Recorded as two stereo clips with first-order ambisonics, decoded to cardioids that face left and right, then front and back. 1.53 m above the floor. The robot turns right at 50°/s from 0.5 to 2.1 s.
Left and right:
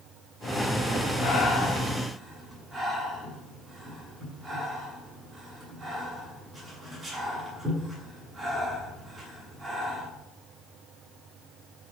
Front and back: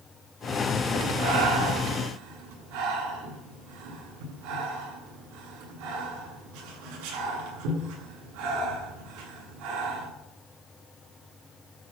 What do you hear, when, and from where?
1.2 s breathing: 145° left, 7.5 m; by 10.1 s 170° right, 7.5 m